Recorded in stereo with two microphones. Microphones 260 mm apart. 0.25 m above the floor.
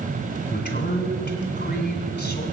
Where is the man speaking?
30° left (ahead or behind), 1.8 m.